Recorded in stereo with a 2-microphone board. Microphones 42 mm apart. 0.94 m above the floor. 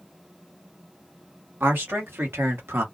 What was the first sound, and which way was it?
A man speaking, 65° right (ahead or behind).